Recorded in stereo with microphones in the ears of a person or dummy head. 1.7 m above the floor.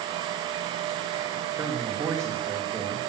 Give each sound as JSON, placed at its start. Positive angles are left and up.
{"t": 1.6, "sound": "a man speaking", "side_deg": -15, "distance_m": 3.5}